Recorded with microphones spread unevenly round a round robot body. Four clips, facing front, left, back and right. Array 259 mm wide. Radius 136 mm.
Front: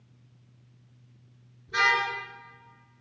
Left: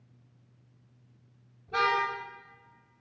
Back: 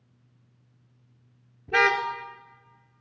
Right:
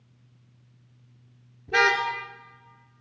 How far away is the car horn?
About 4 m.